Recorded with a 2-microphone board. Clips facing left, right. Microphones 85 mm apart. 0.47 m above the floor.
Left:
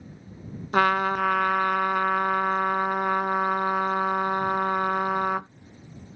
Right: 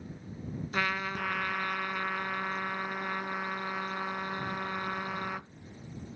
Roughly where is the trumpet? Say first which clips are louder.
Left 12 dB; left.